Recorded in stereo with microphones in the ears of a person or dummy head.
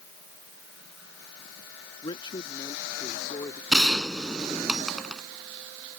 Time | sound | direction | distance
2.0 | a man speaking | 25° left (ahead or behind) | ?
3.7 | a gunshot | centre (ahead or behind) | ?